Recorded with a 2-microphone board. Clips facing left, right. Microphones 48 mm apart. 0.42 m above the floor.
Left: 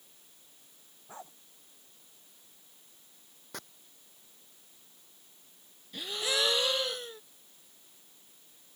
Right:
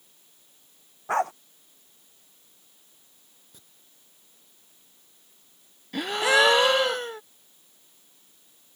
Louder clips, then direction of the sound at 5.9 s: Right 12 dB; 75° right (ahead or behind).